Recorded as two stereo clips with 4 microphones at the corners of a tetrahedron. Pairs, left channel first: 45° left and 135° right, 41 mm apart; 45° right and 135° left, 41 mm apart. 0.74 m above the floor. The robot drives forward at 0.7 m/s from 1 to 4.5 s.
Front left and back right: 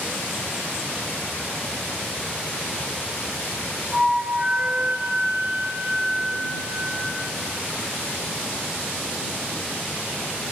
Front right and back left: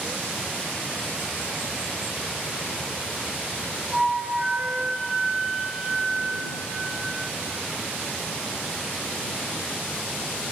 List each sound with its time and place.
3.9 s a flute: 150° right, 0.5 m; by 7.2 s 170° right, 0.7 m